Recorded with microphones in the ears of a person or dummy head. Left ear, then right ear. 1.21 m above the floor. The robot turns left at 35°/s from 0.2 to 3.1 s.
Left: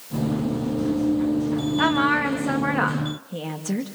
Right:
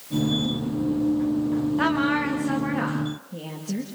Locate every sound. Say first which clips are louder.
1.8 s a woman speaking: left 4 dB; 175° left, 2.0 m; by 3.9 s 130° left, 2.0 m